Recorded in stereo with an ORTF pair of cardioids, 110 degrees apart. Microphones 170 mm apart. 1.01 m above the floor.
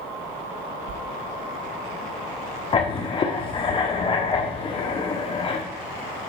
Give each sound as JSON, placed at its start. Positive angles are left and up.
{"t": 0.9, "sound": "a sliding door", "azimuth_deg": -50, "distance_m": 0.7}
{"t": 2.7, "sound": "writing", "azimuth_deg": 30, "distance_m": 1.3}